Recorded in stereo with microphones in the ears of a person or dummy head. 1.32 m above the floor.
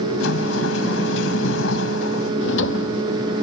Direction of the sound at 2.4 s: 75° left (ahead or behind).